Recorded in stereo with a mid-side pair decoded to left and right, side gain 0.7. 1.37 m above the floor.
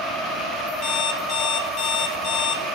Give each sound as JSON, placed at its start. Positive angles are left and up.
{"t": 0.8, "sound": "an alarm clock", "azimuth_deg": 55, "distance_m": 1.6}